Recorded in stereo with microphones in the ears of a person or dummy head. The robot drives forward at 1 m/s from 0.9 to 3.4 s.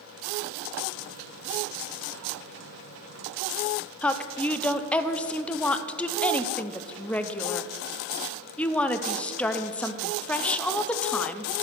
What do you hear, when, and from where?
4.0 s a woman speaking: 10° left (ahead or behind), 0.6 m